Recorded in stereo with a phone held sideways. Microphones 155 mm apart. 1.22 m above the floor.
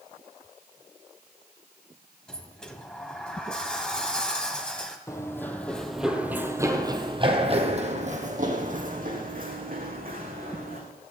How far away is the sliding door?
About 1.7 m.